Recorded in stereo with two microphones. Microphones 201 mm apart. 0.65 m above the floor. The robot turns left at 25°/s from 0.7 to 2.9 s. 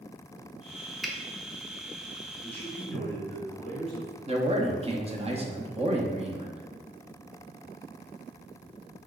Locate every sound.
1.0 s a finger snap: centre (ahead or behind), 0.6 m
2.4 s a man speaking: 10° left (ahead or behind), 1.8 m; by 4.1 s centre (ahead or behind), 1.8 m
4.3 s a man speaking: 30° right (ahead or behind), 0.6 m